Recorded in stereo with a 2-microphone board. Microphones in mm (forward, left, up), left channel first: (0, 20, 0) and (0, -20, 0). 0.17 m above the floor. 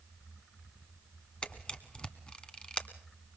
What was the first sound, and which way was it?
A camera shutter, 20° left (ahead or behind).